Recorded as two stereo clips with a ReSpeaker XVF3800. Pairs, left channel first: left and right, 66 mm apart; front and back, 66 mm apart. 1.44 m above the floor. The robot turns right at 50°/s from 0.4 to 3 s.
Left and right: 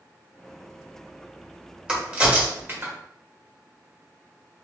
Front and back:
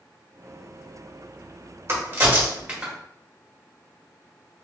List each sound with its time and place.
1.9 s a crack: 160° right, 1.2 m; by 2.9 s 105° right, 1.2 m